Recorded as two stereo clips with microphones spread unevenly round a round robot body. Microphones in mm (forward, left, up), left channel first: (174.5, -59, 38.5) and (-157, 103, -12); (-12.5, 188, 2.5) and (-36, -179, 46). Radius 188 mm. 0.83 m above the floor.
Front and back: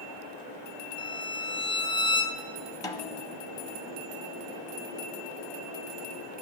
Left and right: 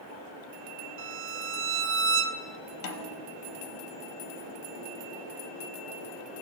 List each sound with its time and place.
1.0 s a violin: 105° right, 0.5 m
2.8 s a snare drum: 45° left, 0.8 m